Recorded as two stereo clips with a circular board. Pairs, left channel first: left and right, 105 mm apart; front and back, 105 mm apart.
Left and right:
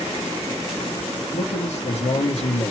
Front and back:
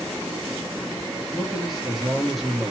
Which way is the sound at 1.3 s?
90° left.